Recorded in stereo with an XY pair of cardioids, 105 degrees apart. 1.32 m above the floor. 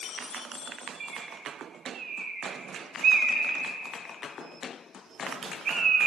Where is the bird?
50° right, 1.2 m.